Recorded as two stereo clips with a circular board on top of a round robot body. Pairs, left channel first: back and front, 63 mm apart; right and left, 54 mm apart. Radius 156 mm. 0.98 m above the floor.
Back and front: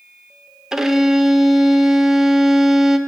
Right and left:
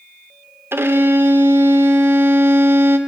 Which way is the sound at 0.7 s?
80° left.